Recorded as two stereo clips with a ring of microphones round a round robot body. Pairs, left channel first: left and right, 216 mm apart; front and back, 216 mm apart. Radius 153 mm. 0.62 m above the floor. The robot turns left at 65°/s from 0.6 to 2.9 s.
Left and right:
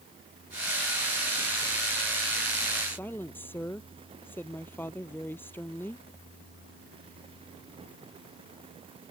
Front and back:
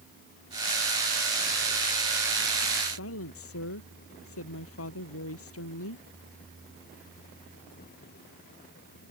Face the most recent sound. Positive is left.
turn(degrees=10)